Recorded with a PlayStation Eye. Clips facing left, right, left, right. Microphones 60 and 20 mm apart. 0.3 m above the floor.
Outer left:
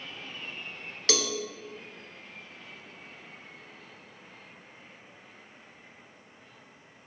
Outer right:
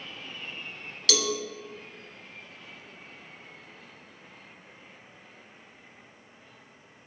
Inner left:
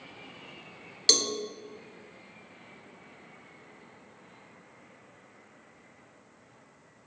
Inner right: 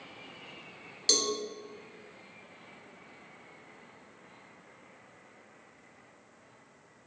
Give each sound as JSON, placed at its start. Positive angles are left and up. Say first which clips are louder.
{"t": 1.1, "sound": "a cowbell", "louder": "outer right 1 dB, inner left 4 dB", "side_deg": 35, "distance_m": 0.7}